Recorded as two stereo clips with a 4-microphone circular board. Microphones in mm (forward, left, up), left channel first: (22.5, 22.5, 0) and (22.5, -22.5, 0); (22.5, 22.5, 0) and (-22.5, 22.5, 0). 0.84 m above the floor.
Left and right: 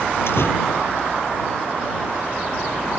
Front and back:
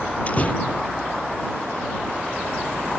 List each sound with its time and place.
0.3 s a door slam: 60° left